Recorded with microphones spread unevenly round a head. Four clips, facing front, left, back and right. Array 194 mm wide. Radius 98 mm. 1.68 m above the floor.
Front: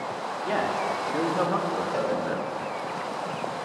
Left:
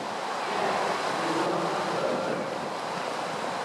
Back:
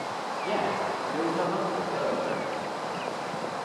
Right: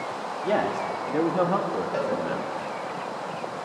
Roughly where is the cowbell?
Ahead right.